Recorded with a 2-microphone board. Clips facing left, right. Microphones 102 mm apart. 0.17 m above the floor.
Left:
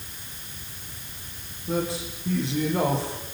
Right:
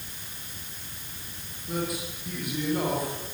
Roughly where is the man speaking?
Left.